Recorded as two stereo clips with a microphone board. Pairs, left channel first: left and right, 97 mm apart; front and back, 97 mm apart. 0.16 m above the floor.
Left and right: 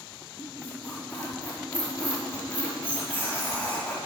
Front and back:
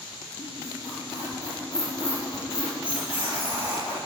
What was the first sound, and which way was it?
A squeak, 15° left.